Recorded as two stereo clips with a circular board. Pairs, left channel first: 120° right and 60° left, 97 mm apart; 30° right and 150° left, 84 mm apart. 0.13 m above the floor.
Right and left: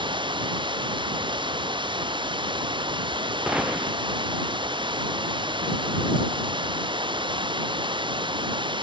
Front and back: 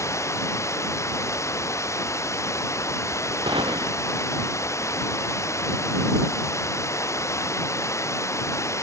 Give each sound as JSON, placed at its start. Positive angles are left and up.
{"t": 0.0, "sound": "running water", "azimuth_deg": 25}
{"t": 3.5, "sound": "a gunshot", "azimuth_deg": 140}